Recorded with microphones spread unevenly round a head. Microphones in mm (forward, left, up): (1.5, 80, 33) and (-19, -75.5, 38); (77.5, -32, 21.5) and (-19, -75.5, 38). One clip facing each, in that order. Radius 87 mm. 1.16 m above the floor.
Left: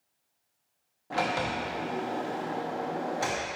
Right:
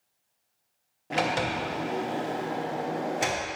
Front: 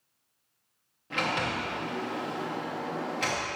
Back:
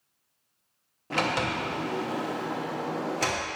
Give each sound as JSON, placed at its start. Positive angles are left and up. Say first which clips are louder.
{"t": 1.1, "sound": "a sliding door", "louder": "right 2 dB, back 3 dB", "azimuth_deg": -155, "distance_m": 0.6}